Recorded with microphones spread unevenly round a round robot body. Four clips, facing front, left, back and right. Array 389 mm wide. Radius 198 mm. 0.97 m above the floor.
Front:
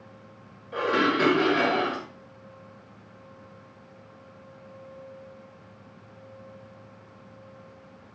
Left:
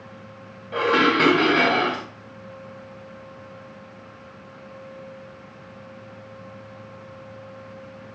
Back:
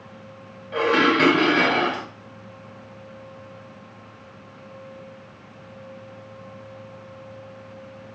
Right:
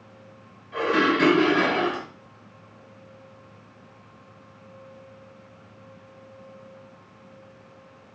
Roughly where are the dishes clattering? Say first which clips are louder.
Left 2 dB, back 5 dB; left.